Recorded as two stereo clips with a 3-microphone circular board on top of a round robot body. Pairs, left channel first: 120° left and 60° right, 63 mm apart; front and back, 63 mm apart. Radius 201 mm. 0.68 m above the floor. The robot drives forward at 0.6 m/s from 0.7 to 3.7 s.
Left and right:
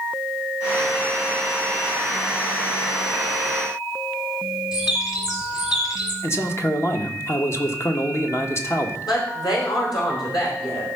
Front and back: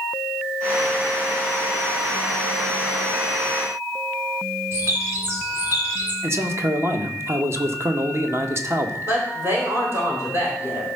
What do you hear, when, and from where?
4.7 s a bird: 130° left, 2.5 m
6.2 s a man speaking: 150° left, 1.7 m
9.1 s a woman speaking: 130° left, 4 m